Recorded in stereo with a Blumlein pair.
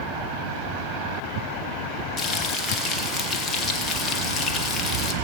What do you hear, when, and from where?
2.2 s frying: 20° left, 1.7 m